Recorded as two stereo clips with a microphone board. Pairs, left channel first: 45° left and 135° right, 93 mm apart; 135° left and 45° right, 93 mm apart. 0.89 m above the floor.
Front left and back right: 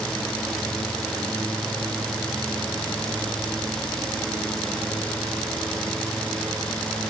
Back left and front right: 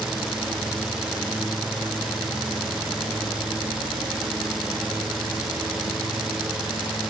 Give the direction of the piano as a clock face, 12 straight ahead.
I don't hear a piano.